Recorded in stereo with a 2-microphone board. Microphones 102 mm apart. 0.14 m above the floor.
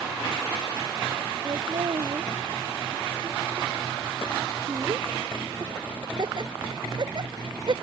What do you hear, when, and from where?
1.4 s laughter: 50° right (ahead or behind)